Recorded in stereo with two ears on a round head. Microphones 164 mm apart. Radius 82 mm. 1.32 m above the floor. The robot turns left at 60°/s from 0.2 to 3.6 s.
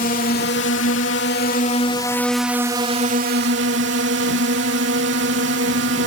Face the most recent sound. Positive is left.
turn(degrees=-75)